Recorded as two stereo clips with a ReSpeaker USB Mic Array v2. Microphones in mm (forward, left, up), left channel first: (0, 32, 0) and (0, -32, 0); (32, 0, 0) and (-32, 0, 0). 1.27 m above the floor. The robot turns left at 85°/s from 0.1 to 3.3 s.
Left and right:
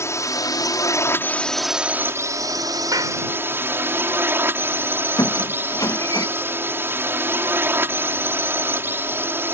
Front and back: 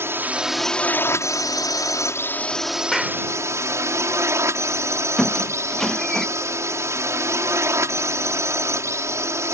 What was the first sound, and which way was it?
A drone, 130° left.